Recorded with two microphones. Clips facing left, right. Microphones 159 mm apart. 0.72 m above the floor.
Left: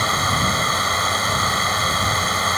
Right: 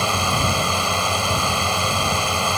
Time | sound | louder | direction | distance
0.0 | a drone | right 1 dB | 10° right (ahead or behind) | ?